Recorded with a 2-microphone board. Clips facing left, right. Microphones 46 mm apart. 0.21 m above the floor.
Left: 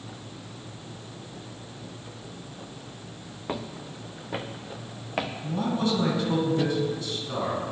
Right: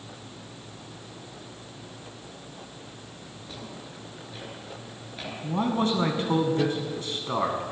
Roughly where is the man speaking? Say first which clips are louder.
Right 3 dB; right.